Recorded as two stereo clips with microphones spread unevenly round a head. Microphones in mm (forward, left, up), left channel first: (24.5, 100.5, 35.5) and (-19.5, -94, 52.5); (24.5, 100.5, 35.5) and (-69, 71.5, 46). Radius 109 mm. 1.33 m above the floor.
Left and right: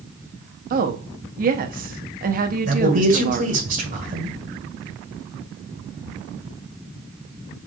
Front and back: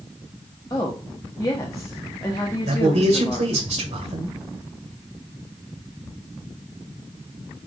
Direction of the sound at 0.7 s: 55° right.